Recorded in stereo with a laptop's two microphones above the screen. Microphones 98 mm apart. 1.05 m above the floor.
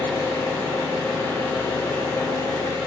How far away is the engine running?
About 1.3 m.